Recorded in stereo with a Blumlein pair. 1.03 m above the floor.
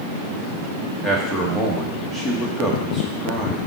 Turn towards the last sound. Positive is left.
turn(degrees=0)